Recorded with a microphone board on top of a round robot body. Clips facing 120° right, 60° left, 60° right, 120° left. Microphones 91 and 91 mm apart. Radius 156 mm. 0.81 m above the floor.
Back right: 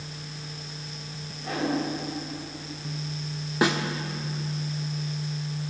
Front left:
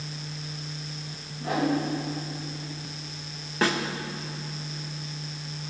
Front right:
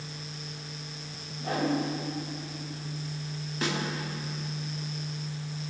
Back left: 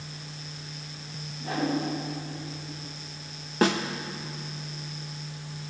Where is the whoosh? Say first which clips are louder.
Front left 3 dB, even; 15° right, 3.5 m.